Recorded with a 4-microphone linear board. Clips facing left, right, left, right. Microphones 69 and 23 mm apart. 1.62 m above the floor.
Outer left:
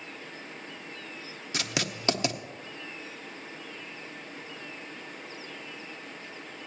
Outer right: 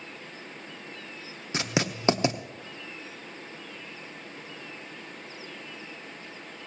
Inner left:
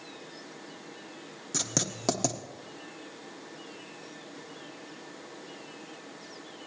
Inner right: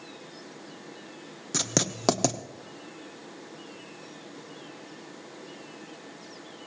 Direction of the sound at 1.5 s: 25° right (ahead or behind).